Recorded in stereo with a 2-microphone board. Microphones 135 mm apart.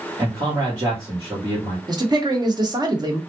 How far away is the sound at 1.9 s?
About 0.9 m.